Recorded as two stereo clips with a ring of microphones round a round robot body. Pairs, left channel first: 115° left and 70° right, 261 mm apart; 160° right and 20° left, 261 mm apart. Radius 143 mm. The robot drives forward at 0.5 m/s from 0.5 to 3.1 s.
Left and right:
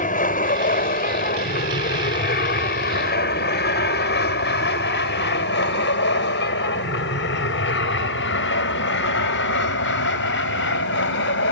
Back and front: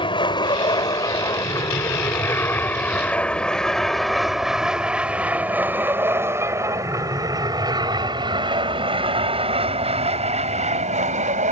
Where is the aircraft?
145° left; by 11.5 s 80° left.